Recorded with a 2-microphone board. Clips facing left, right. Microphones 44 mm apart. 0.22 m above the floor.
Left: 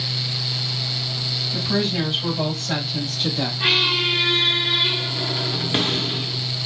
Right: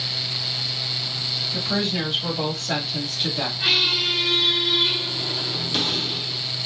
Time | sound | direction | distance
1.5 | a woman speaking | 5° left (ahead or behind) | 1.6 m
3.6 | a squeak | 35° left (ahead or behind) | 0.6 m